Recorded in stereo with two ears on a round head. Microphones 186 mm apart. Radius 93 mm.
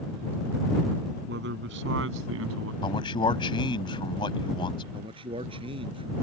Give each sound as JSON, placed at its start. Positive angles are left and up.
{"t": 1.3, "sound": "a man speaking", "side_deg": -55}
{"t": 2.8, "sound": "a man speaking", "side_deg": 25}
{"t": 4.9, "sound": "a man speaking", "side_deg": -25}